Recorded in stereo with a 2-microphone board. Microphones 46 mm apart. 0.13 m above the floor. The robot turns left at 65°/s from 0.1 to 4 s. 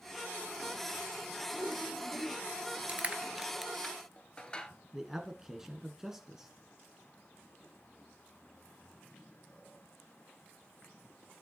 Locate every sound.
1.5 s a whoosh: 30° right, 2.5 m; by 2.4 s 90° right, 2.5 m
2.9 s crushing: 35° right (ahead or behind), 1.1 m; by 4.7 s 20° left (ahead or behind), 1.1 m
4.9 s a man speaking: 10° right (ahead or behind), 1.1 m